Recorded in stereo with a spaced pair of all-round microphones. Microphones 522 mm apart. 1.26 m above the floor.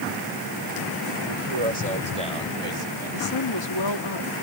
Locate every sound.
1.2 s a man speaking: 85° right; by 3.3 s 75° right (ahead or behind)
3.1 s a woman speaking: 55° left (ahead or behind)